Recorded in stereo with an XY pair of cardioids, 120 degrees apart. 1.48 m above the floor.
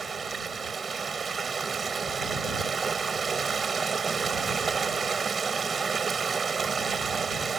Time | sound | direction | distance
0.0 | running water | 30° right | ?